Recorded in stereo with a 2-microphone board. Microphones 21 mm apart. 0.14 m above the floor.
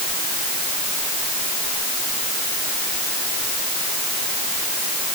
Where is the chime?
I don't hear a chime.